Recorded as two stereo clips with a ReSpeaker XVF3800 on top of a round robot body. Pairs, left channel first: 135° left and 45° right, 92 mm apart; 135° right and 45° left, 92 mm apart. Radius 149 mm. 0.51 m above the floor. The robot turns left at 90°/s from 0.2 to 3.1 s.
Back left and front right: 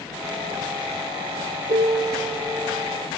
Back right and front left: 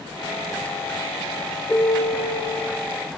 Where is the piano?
50° right, 0.9 m; by 2.4 s 115° right, 0.9 m.